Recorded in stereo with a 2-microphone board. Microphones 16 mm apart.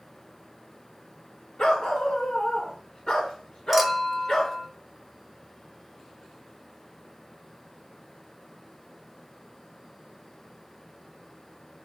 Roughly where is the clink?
Right.